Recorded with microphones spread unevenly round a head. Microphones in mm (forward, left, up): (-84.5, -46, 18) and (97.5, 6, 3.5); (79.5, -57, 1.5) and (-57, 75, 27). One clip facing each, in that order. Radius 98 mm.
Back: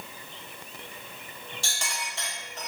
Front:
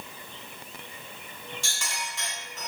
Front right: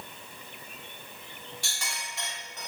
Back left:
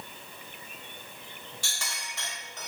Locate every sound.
1.6 s a clink: 135° left, 5 m